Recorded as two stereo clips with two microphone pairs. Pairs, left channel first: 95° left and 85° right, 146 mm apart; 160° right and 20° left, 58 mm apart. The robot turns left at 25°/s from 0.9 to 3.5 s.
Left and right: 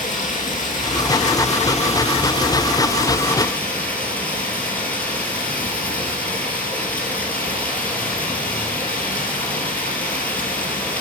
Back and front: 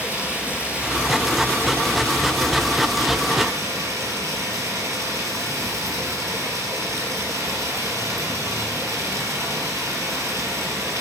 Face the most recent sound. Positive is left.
turn(degrees=15)